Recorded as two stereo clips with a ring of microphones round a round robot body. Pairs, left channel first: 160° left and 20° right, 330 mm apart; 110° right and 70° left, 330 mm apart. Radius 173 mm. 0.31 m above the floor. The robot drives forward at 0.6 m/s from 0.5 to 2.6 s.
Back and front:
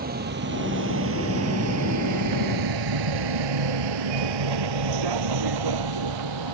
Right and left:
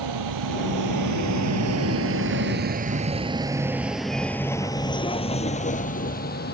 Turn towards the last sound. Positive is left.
turn(degrees=-50)